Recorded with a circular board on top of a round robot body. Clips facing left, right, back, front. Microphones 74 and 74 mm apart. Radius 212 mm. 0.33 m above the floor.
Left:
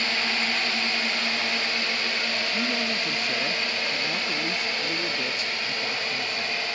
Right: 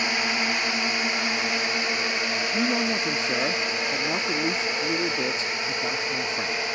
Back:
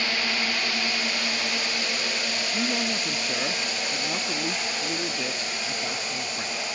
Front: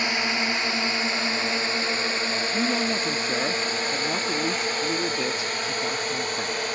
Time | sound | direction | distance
0.0 | a drone | 40° right | ?
2.5 | a man speaking | 65° right | ?